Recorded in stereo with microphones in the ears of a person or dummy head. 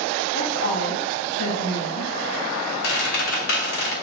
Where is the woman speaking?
70° left (ahead or behind), 1.9 m.